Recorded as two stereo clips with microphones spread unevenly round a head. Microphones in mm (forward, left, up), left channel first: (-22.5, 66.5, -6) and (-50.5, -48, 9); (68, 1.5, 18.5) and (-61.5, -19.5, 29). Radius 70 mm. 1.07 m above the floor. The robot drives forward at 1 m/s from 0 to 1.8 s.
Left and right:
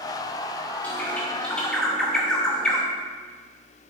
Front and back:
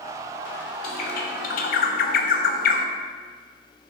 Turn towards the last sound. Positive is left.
turn(degrees=-10)